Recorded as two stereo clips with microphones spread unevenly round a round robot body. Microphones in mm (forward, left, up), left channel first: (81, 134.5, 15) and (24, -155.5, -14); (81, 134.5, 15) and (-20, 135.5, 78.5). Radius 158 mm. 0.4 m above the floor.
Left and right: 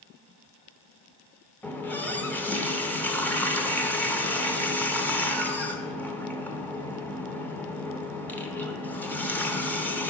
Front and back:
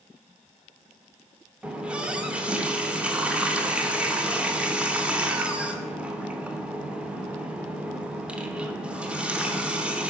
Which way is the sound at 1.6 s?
10° right.